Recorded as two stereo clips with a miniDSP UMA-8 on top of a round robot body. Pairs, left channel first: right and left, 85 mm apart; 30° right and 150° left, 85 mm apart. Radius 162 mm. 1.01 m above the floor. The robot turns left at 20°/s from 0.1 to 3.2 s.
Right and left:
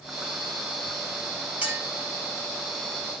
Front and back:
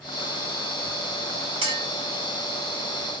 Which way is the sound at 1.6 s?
165° left.